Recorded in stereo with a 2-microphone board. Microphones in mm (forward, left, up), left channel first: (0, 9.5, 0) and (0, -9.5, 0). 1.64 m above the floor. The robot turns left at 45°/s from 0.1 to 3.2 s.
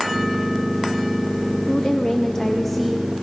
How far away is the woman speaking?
About 1.0 m.